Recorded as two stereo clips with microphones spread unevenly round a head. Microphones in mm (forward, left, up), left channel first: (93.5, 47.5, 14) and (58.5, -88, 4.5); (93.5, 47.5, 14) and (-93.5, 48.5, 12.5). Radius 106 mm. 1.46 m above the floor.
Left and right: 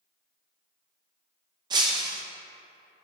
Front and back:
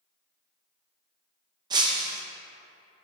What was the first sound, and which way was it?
Breaking glass, 135° right.